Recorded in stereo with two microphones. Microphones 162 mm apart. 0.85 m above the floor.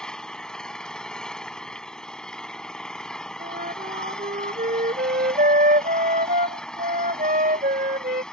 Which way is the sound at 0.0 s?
5° left (ahead or behind).